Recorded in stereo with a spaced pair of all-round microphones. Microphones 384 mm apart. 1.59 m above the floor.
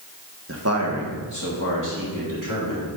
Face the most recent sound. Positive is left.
turn(degrees=-55)  # may be behind; listen again after turning